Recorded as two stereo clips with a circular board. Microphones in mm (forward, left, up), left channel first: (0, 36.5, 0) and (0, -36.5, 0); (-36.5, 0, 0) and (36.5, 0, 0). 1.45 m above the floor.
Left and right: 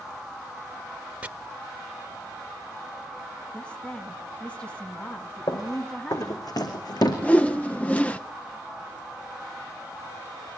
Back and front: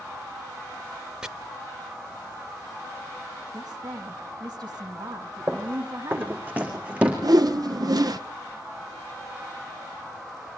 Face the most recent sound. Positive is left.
turn(degrees=20)